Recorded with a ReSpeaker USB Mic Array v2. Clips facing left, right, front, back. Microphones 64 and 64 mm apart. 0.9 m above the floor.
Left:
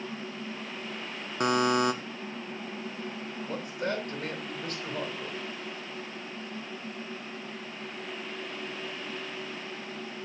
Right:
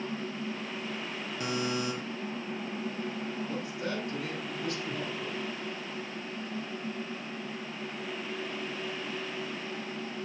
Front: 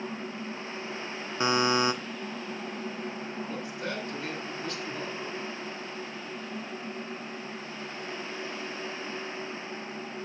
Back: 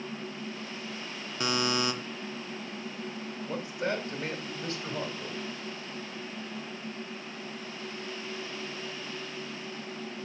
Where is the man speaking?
130° left, 3.5 m.